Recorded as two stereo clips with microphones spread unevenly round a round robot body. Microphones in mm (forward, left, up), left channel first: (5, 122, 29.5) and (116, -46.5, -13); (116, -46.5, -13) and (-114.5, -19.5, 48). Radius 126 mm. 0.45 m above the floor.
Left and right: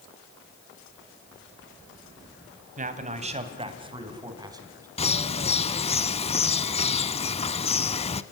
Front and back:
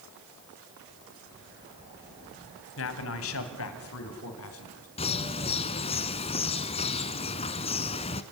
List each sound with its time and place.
2.8 s a man speaking: 15° right, 3 m; by 4.9 s 15° left, 4.5 m
5.0 s a bird: 65° left, 1.0 m